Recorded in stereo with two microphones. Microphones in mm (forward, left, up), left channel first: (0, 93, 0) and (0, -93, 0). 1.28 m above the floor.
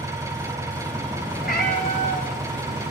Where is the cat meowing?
55° left (ahead or behind), 9 m.